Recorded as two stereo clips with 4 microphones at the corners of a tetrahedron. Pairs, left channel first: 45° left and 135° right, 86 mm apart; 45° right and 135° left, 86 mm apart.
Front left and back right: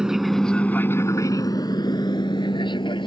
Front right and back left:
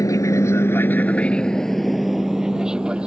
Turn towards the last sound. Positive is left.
turn(degrees=55)